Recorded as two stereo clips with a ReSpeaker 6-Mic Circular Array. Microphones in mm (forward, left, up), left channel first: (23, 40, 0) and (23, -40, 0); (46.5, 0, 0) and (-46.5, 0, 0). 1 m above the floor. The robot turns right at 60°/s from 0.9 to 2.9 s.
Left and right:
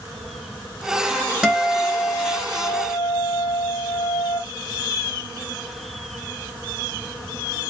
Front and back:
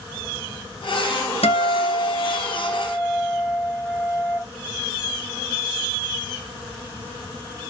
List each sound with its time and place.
1.4 s a guitar: 5° right, 0.8 m; by 4.4 s 85° left, 0.8 m